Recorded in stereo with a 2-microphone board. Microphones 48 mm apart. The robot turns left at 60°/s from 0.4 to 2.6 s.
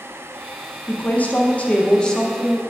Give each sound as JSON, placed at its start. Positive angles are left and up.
{"t": 0.9, "sound": "a woman speaking", "side_deg": 30, "distance_m": 0.7}